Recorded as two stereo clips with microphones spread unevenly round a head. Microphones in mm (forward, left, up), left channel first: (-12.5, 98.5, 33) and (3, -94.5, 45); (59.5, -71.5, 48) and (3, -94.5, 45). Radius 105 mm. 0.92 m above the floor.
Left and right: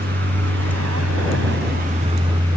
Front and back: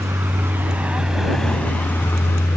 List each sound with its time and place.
0.0 s a vehicle: 125° right; by 2.6 s 15° right